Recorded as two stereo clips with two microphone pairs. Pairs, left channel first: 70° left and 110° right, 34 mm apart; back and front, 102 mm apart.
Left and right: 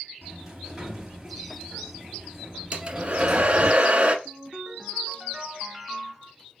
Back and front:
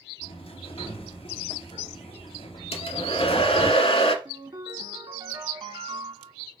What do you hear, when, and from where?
0.2 s a sliding door: 170° left, 2 m
2.7 s a hair dryer: 170° right, 1.2 m
4.2 s a ringtone: 40° right, 1.2 m